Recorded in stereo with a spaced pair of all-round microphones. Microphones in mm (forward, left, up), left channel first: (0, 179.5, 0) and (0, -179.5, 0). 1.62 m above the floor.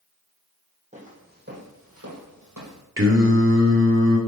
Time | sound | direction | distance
0.9 | footsteps | 20° right (ahead or behind) | 3.5 m
3.0 | singing | 35° right (ahead or behind) | 2 m